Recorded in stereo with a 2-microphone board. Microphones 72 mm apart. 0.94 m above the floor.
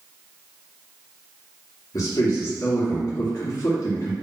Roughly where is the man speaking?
Left.